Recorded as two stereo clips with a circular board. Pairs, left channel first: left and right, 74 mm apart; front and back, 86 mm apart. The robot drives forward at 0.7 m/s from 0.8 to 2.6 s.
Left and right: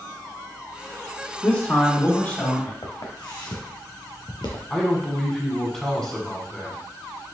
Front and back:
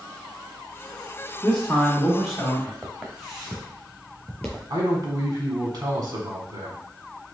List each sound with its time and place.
1.4 s a man speaking: 70° left, 1.9 m; by 2.7 s 110° left, 1.9 m
2.8 s footsteps: 100° left, 1.7 m; by 4.6 s 80° left, 2 m
4.7 s a man speaking: 170° left, 1.5 m